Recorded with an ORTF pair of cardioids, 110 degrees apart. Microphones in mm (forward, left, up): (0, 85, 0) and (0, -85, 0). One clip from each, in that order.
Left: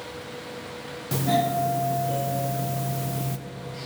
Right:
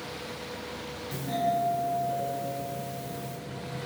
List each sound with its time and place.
1.1 s a doorbell: 55° left, 0.8 m